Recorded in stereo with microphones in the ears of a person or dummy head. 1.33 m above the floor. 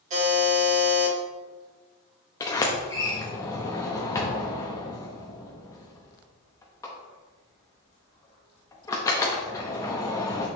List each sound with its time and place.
0.1 s a buzzer: 40° right (ahead or behind), 2.5 m
2.4 s a sliding door: 15° left (ahead or behind), 0.8 m